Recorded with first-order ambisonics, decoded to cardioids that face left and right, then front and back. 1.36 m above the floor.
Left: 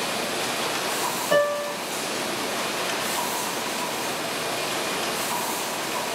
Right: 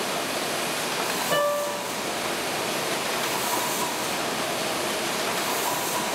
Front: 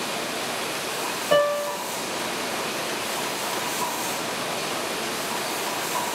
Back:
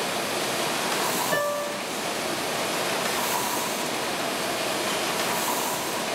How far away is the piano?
About 1.0 m.